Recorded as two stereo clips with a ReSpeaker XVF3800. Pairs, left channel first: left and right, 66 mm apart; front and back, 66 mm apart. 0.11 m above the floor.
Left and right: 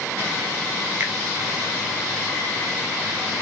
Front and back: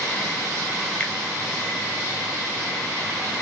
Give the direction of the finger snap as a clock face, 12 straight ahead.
2 o'clock.